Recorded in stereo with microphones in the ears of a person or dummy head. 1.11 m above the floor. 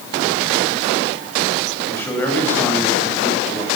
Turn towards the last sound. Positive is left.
turn(degrees=10)  # may be behind; listen again after turning